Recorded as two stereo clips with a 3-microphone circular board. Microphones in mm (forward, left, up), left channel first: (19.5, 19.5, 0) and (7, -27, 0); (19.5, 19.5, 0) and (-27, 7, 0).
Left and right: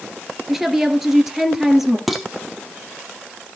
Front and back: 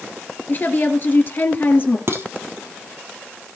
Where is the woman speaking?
20° right, 2.5 m.